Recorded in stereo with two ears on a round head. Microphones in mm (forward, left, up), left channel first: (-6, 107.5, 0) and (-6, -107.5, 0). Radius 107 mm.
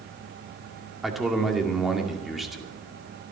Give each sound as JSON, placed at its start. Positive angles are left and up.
{"t": 1.0, "sound": "a man speaking", "side_deg": 0, "distance_m": 2.0}